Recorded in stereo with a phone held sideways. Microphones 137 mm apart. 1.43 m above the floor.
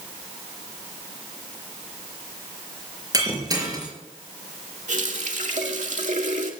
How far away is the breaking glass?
About 5 m.